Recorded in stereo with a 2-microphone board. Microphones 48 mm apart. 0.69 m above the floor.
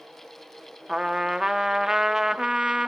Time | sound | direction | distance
0.9 | a trumpet | 10° right (ahead or behind) | 0.8 m